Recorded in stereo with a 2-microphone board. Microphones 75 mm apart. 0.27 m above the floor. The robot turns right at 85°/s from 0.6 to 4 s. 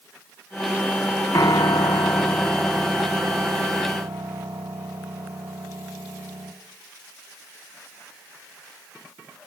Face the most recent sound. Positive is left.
turn(degrees=-70)